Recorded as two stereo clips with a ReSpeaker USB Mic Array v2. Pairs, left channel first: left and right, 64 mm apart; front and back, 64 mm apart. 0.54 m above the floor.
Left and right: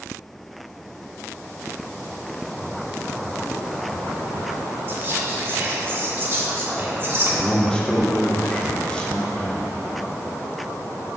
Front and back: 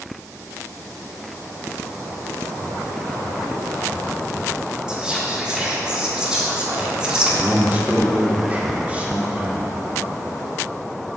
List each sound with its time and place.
4.9 s whispering: 110° right, 1.4 m
7.4 s a man speaking: 145° left, 1.0 m